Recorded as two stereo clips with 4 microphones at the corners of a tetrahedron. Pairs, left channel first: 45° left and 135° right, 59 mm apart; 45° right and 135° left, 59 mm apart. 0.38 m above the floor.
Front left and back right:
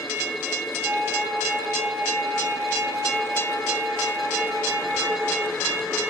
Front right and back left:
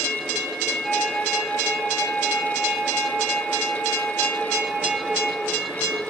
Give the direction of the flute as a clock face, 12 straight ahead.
4 o'clock.